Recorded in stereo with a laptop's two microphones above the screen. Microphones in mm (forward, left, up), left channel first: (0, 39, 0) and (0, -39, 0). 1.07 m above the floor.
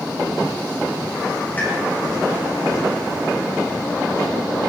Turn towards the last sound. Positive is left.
turn(degrees=25)  # may be behind; listen again after turning